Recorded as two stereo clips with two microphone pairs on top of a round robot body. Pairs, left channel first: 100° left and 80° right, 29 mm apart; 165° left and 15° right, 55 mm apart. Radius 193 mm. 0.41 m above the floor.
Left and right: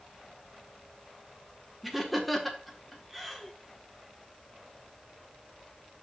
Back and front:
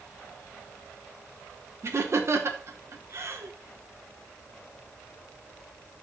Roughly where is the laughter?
Ahead.